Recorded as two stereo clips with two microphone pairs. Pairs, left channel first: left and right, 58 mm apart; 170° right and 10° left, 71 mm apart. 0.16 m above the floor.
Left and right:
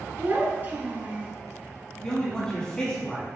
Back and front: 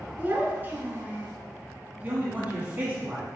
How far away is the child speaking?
About 1.0 m.